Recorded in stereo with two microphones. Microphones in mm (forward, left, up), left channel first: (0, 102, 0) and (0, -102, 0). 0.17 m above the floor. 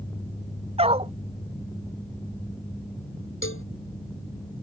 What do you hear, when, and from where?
0.8 s a dog barking: 30° right (ahead or behind)
3.4 s a cowbell: 85° left